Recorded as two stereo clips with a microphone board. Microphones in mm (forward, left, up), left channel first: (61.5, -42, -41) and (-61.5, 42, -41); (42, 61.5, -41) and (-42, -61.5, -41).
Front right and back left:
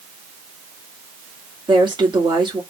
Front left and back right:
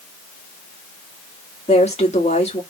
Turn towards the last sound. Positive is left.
turn(degrees=90)